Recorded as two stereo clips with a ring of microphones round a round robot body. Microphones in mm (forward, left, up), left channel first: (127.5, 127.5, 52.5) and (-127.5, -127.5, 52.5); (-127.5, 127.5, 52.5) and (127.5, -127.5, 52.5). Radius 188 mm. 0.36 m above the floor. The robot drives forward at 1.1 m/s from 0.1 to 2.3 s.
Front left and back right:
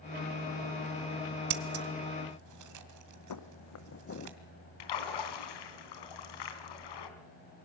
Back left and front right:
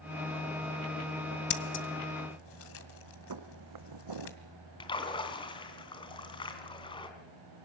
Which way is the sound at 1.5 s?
170° right.